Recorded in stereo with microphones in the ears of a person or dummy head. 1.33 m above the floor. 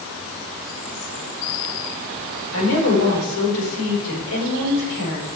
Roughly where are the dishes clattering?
I don't hear dishes clattering.